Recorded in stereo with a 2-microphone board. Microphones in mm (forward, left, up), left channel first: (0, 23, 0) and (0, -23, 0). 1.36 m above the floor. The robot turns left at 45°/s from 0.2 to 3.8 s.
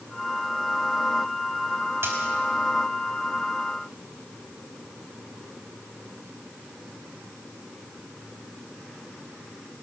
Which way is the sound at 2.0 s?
60° right (ahead or behind).